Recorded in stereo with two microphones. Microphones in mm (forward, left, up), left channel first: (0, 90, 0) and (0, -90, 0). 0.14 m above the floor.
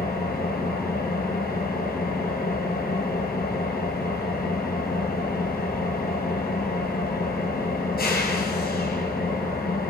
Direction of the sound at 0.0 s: 60° left (ahead or behind).